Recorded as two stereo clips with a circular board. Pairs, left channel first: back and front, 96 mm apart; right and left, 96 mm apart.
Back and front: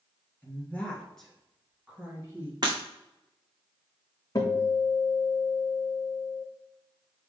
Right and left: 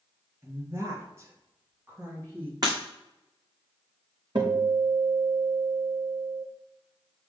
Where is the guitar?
125° left, 2.0 m.